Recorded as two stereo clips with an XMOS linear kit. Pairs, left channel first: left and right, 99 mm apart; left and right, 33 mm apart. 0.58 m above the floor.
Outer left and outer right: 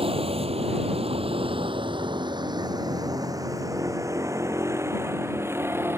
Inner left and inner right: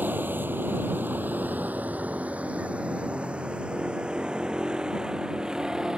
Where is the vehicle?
70° right (ahead or behind); by 6.0 s 25° right (ahead or behind).